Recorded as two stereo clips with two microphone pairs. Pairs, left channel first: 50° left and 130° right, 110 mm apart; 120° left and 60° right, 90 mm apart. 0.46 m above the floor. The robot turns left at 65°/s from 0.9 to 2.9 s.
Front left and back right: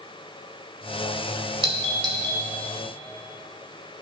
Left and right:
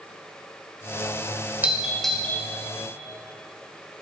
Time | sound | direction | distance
1.6 | a doorbell | 130° right | 2.5 m